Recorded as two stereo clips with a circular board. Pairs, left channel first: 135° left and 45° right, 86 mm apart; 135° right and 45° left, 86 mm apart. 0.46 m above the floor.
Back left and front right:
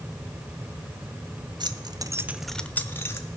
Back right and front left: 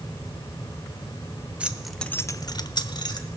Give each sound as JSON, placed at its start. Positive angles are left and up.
{"t": 1.6, "sound": "keys jangling", "azimuth_deg": -30, "distance_m": 1.0}